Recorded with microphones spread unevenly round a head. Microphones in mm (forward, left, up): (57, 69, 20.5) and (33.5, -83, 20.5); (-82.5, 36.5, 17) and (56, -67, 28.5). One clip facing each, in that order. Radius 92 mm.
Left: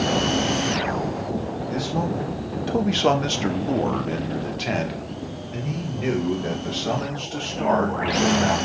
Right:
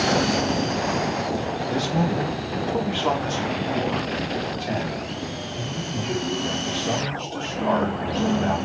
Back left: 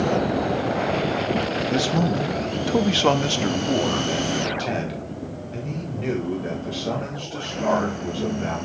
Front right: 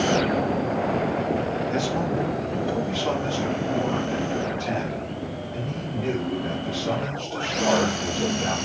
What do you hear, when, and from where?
1.7 s a man speaking: 165° right, 1.0 m; by 8.6 s 70° left, 4 m